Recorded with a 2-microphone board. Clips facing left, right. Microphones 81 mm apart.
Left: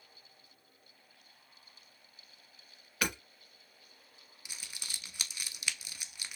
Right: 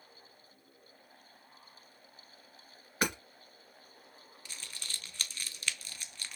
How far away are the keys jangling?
I don't hear keys jangling.